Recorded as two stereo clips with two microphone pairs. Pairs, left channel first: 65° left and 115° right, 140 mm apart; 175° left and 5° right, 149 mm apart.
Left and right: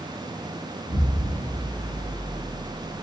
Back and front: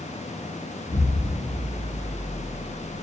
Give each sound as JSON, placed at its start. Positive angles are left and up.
{"t": 0.9, "sound": "an explosion", "azimuth_deg": 160, "distance_m": 1.4}